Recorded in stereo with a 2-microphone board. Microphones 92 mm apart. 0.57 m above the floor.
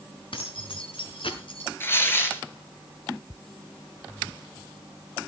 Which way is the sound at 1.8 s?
25° left (ahead or behind).